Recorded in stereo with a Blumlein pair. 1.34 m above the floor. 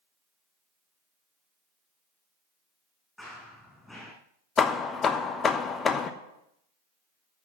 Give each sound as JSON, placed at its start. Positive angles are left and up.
{"t": 3.2, "sound": "running footsteps", "azimuth_deg": 5, "distance_m": 6.0}
{"t": 4.6, "sound": "hammering", "azimuth_deg": 20, "distance_m": 1.0}